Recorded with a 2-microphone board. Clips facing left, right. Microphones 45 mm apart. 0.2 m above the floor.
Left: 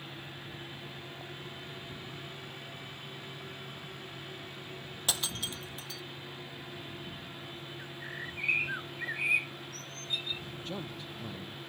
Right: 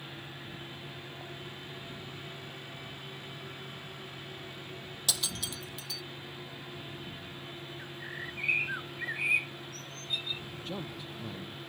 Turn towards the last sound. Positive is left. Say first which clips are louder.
# right 1 dB
turn(degrees=-5)  # may be behind; listen again after turning